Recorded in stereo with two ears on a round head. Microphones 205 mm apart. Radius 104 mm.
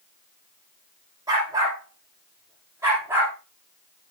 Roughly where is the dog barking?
Centre.